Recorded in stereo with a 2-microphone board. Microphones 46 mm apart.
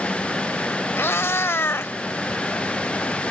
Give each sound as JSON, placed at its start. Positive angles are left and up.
{"t": 1.0, "sound": "a cat meowing", "side_deg": 60}